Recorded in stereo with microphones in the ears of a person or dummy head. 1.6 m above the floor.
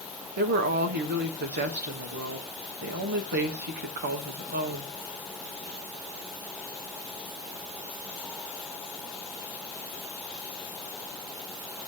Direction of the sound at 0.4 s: 55° right (ahead or behind).